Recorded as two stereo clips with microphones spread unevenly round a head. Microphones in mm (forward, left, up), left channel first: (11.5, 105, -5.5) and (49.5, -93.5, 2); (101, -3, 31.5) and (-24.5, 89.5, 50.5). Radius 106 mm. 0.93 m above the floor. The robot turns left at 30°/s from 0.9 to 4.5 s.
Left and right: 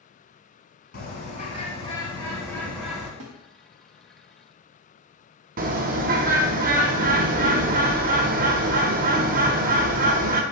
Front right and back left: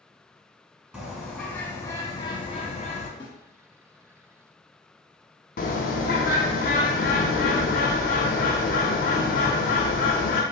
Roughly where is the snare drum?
Right.